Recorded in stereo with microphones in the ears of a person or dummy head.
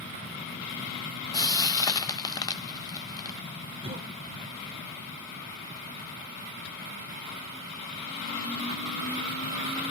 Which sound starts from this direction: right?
A cough, at 3.8 s.